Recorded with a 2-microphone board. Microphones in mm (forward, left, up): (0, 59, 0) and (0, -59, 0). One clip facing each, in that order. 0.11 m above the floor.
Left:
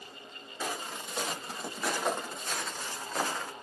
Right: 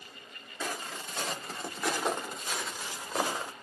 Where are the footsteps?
10° left (ahead or behind), 3 m; by 3.5 s 20° right (ahead or behind), 1.8 m.